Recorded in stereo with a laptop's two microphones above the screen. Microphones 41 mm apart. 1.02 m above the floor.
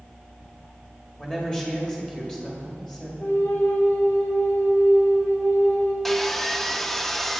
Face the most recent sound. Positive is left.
turn(degrees=5)  # may be behind; listen again after turning